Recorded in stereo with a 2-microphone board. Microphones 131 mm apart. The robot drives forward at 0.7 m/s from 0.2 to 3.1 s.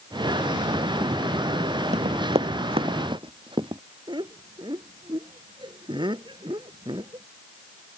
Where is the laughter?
35° right (ahead or behind).